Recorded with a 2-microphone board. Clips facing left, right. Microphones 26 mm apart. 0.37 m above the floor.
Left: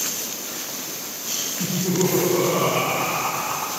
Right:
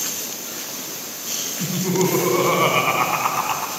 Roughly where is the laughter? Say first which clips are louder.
Right 2 dB; right.